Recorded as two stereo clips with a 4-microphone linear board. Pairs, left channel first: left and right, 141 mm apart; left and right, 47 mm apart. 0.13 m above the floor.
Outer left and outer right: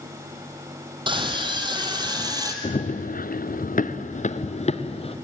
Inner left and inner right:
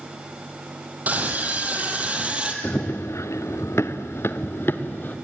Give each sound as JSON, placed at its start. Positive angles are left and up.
{"t": 1.1, "sound": "a scream", "side_deg": -35, "distance_m": 4.0}
{"t": 2.6, "sound": "running footsteps", "side_deg": 55, "distance_m": 1.0}